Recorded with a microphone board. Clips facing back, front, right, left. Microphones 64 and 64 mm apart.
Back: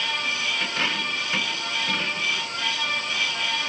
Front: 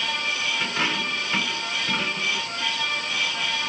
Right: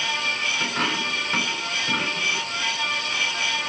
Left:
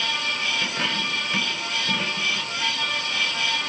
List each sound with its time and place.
0.6 s a dropped coin: 80° right, 5.5 m